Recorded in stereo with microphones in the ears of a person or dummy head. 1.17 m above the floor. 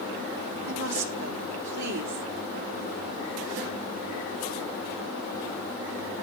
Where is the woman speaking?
80° right, 3.5 m.